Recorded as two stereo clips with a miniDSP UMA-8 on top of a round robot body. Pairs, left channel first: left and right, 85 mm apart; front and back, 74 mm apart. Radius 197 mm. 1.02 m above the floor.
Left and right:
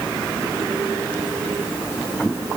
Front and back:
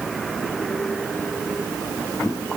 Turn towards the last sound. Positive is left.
No sound to turn to.